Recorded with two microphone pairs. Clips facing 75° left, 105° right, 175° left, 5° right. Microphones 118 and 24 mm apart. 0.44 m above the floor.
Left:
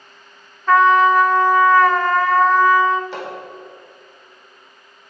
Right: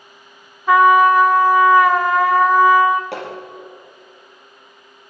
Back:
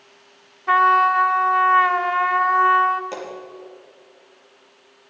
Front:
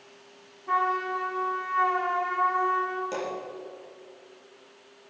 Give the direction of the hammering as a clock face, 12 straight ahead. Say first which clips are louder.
Right 1 dB, even; 4 o'clock.